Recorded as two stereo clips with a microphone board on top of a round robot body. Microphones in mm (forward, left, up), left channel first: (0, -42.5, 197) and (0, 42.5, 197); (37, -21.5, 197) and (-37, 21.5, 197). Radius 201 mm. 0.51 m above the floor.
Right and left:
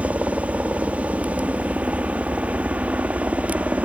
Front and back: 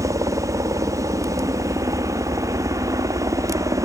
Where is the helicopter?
155° left.